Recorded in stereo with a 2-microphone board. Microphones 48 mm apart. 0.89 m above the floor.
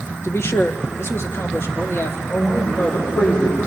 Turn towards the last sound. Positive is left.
turn(degrees=65)  # may be behind; listen again after turning